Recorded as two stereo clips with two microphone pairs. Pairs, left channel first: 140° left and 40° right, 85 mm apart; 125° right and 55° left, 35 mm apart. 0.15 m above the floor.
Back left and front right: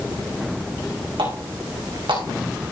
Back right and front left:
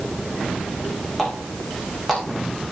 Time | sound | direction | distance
1.2 | a running tap | 40° right | 6 m